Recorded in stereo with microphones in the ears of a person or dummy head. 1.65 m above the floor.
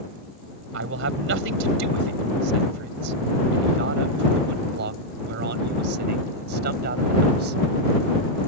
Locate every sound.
0.7 s a man speaking: 75° right (ahead or behind); by 7.6 s 55° right (ahead or behind)